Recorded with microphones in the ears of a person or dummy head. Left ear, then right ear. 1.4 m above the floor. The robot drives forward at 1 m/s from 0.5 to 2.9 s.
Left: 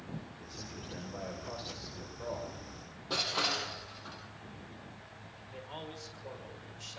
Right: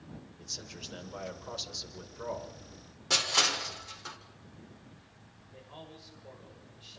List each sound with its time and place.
0.4 s a man speaking: 90° right, 5 m; by 2.6 s 70° right (ahead or behind), 5.5 m
3.1 s crushing: 65° right (ahead or behind), 4.5 m
5.5 s a man speaking: 70° left (ahead or behind), 6 m